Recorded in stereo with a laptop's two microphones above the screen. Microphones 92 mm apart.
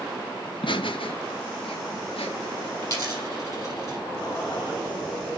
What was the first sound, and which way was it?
Laughter, 55° left (ahead or behind).